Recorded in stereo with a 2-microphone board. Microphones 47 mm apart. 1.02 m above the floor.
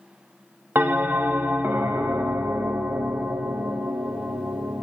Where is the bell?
45° right (ahead or behind), 0.6 m.